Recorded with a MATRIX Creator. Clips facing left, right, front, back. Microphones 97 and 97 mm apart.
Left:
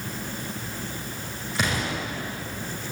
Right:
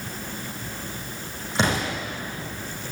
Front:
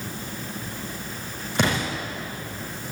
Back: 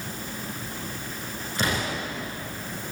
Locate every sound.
1.6 s an explosion: 30° right, 9.5 m